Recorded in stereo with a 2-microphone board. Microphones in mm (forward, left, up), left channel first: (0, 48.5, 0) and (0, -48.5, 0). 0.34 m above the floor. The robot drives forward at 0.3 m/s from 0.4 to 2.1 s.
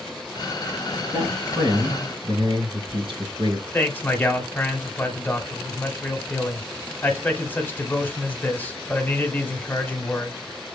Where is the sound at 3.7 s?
15° left (ahead or behind), 0.9 m.